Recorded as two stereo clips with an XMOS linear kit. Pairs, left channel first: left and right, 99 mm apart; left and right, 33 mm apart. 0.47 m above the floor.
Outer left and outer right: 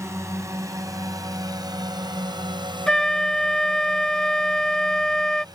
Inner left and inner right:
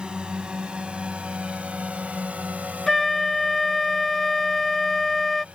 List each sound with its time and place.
0.0 s a drone: 30° right (ahead or behind); by 5.5 s 45° right (ahead or behind)
2.9 s a flute: 5° left (ahead or behind)